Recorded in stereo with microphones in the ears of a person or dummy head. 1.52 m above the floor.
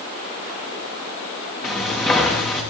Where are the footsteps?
10° left (ahead or behind), 4.5 m.